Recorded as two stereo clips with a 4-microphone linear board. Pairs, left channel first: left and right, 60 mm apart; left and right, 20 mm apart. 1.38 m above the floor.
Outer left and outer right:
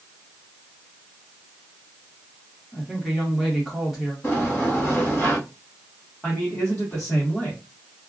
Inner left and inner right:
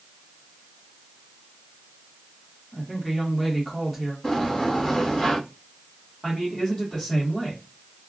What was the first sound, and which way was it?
A woman speaking, centre (ahead or behind).